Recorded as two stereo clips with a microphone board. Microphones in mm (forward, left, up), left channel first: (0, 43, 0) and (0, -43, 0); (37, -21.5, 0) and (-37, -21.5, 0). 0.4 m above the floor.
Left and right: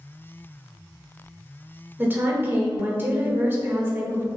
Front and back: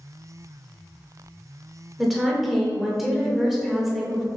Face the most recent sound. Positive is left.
turn(degrees=-95)